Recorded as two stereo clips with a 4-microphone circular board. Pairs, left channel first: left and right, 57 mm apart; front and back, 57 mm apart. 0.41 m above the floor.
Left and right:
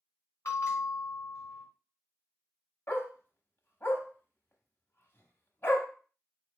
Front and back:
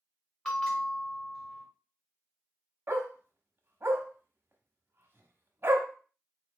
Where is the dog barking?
135° left, 0.9 m.